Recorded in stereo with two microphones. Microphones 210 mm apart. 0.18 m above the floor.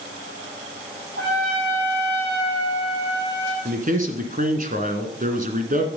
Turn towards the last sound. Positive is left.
turn(degrees=-40)  # may be behind; listen again after turning